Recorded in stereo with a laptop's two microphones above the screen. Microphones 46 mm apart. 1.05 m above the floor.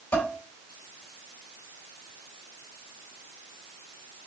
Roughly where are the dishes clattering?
Left.